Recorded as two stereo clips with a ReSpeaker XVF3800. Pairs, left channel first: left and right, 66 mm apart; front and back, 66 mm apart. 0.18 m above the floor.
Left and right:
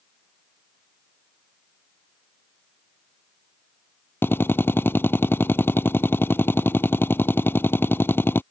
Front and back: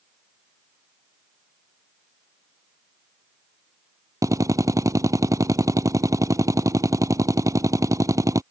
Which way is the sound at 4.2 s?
145° left.